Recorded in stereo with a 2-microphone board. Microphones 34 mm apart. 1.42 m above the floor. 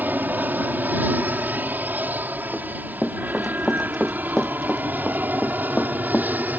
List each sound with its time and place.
0.0 s an aircraft: 65° right (ahead or behind)
2.5 s running footsteps: 10° right (ahead or behind); by 6.3 s 40° left (ahead or behind)